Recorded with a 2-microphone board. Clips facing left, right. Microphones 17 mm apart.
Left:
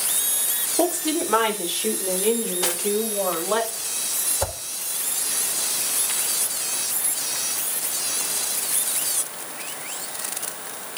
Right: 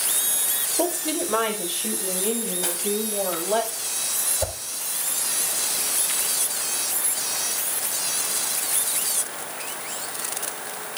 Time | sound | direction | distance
0.8 | a woman speaking | 60° left (ahead or behind) | 2.5 m
2.6 | cutlery clinking | 65° left (ahead or behind) | 1.2 m
4.4 | a whoosh | 75° left (ahead or behind) | 3.5 m